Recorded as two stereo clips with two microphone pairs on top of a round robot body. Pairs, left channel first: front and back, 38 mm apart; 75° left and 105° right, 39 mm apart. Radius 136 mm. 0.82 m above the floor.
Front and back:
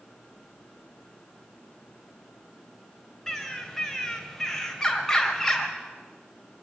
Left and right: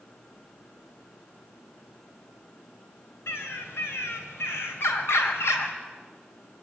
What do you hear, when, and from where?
3.3 s a bird: 80° left, 2.5 m